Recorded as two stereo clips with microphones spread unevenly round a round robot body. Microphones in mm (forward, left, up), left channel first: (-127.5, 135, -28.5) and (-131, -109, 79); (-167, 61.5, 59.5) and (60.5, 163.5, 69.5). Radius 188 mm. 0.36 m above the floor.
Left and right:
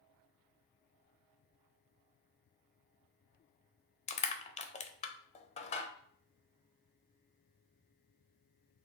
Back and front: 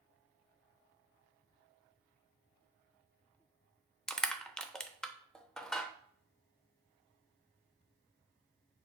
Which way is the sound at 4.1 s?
120° left.